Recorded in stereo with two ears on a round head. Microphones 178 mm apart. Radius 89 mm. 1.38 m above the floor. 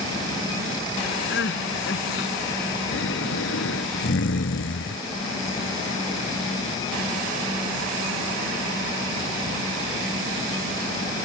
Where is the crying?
60° left (ahead or behind).